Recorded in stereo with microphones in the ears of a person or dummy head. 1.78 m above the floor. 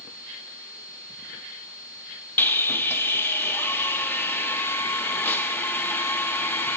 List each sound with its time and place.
2.4 s sawing: 10° left (ahead or behind), 0.6 m